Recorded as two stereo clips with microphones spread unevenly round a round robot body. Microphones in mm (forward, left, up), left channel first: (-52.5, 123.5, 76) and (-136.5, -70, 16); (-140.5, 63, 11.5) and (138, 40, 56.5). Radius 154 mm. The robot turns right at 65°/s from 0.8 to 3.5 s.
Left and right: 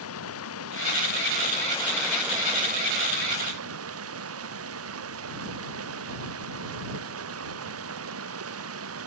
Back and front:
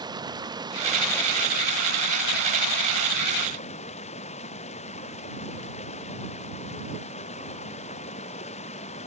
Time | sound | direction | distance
0.0 | running water | 70° left | ?